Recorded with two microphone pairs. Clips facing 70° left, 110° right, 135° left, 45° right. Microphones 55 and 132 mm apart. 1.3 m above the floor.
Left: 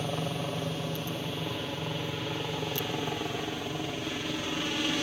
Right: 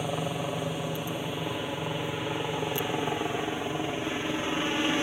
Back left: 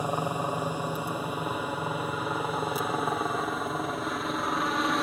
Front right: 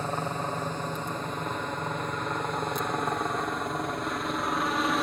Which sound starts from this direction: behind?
A helicopter, at 0.0 s.